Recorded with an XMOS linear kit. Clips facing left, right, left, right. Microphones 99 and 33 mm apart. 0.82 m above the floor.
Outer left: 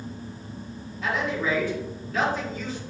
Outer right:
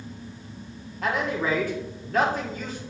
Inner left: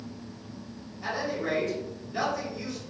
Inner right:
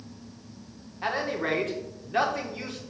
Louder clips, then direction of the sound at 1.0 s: Outer right 1 dB, inner right 2 dB; 50° right (ahead or behind).